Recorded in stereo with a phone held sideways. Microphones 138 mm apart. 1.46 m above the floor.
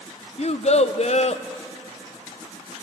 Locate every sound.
0.4 s a child speaking: 55° left (ahead or behind), 0.5 m